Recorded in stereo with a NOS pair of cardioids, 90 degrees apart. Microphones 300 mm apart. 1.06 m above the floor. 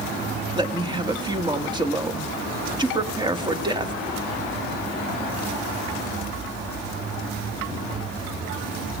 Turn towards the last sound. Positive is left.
turn(degrees=-15)